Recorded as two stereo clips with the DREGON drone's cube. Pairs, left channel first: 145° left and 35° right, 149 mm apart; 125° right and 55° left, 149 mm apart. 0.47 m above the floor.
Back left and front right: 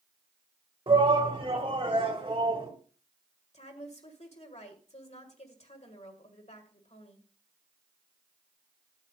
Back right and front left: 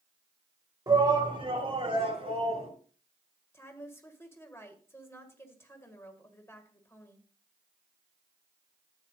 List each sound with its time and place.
0.9 s a shout: 5° left, 1.9 m; by 2.7 s 15° left, 4 m
3.5 s a woman speaking: 165° left, 1.8 m